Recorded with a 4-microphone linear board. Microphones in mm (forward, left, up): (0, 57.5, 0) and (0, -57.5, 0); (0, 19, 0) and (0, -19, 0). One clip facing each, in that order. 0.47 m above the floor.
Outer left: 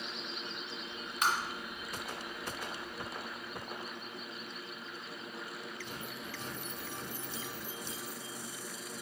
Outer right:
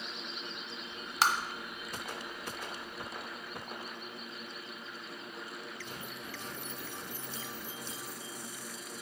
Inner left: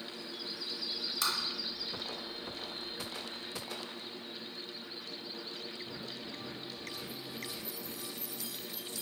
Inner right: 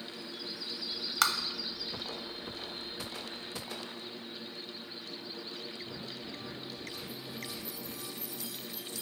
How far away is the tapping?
About 0.6 m.